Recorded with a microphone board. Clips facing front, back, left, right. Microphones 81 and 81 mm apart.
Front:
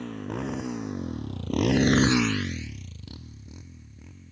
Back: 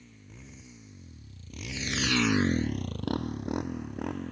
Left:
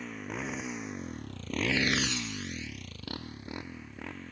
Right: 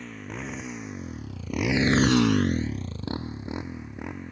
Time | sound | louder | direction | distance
0.0 | a motorcycle | front 20 dB, right 1 dB | 5° left | ?